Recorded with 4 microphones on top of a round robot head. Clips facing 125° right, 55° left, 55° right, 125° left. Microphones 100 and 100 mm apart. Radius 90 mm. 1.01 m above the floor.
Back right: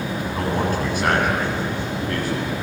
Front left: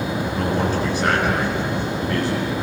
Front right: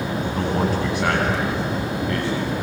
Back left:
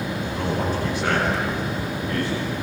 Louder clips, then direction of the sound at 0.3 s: Even, front right 3 dB; 85° right.